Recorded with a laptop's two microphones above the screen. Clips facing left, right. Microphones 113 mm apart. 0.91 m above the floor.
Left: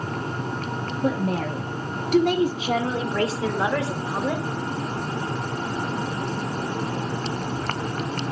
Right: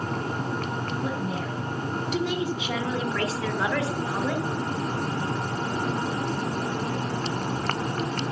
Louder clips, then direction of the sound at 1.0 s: Left 5 dB; 65° left (ahead or behind).